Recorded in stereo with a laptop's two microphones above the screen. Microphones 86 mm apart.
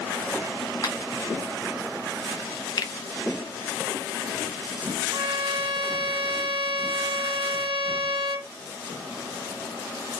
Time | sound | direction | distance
0.8 | a finger snap | 45° left (ahead or behind) | 1.3 m
2.8 | a finger snap | 50° left (ahead or behind) | 0.5 m
5.1 | a violin | 65° right (ahead or behind) | 0.6 m